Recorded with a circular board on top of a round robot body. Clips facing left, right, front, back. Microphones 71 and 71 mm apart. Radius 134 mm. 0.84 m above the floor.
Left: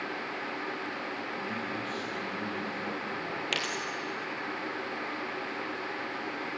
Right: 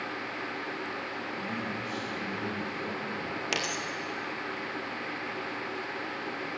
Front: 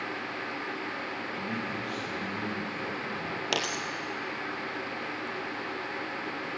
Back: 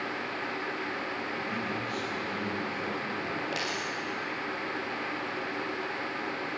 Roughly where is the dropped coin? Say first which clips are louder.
Right 2 dB, front 1 dB; ahead.